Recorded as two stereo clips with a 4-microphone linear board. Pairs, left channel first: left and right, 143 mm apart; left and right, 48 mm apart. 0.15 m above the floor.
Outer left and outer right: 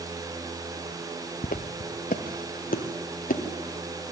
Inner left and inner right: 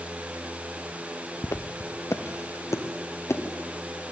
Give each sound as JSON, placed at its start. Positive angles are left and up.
{"t": 1.4, "sound": "footsteps", "side_deg": 75, "distance_m": 1.1}